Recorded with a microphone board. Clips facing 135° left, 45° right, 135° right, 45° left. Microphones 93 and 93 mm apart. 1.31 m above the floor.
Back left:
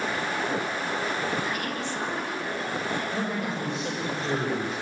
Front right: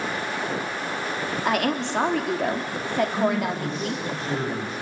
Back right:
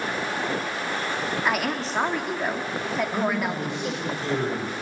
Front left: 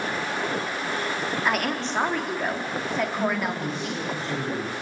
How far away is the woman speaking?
About 3 m.